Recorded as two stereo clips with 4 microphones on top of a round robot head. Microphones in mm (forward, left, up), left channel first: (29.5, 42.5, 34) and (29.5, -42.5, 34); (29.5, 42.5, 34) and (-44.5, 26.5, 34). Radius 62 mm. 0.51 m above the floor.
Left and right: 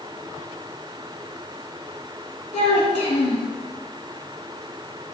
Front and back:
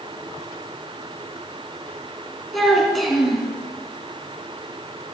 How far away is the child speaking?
About 3 m.